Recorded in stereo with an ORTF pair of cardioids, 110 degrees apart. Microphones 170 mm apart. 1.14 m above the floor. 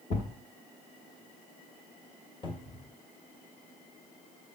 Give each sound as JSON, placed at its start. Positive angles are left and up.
{"t": 0.1, "sound": "a thud", "azimuth_deg": 50, "distance_m": 1.2}
{"t": 2.4, "sound": "a cupboard door", "azimuth_deg": 30, "distance_m": 1.1}